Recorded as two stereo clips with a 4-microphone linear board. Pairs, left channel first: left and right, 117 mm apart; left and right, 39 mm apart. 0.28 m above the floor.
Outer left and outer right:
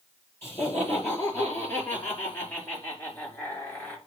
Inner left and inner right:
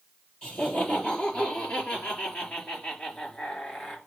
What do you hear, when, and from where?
0.4 s laughter: 25° left (ahead or behind), 6 m; by 4.0 s 15° left (ahead or behind), 4.5 m